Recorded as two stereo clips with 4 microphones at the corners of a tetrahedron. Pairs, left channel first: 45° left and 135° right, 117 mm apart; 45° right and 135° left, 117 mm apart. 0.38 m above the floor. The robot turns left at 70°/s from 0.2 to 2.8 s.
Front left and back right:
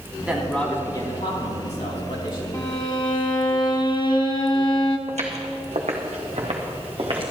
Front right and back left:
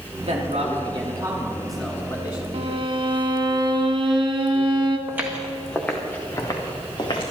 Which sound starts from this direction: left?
A violin, at 2.5 s.